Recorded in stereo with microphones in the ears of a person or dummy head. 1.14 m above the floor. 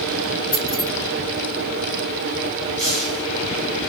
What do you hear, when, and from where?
0.5 s keys jangling: 15° left (ahead or behind), 1.4 m
2.8 s a hiss: centre (ahead or behind), 1.8 m